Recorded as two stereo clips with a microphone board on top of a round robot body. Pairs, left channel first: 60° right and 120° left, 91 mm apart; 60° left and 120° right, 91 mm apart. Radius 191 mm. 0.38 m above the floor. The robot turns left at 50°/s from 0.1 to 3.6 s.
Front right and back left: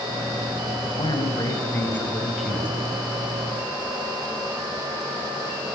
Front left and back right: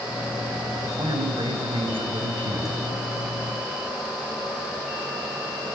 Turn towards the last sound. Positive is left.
turn(degrees=150)